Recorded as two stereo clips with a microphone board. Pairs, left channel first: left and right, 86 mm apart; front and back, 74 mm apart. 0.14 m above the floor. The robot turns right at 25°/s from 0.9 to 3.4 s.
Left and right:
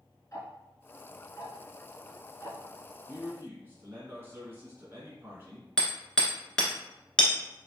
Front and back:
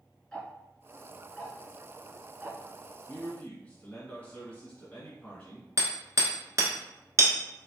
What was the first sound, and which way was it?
Ticking, 75° left.